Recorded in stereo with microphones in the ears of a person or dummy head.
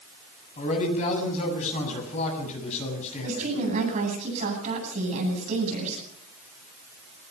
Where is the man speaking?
45° left (ahead or behind), 7 m.